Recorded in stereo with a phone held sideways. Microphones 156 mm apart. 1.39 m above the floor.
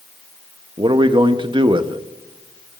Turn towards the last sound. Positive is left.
turn(degrees=-30)  # may be behind; listen again after turning